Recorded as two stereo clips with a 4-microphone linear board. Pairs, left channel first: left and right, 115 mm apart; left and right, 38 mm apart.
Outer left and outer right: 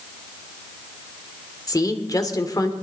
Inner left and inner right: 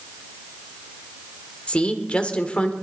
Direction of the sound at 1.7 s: 30° left (ahead or behind).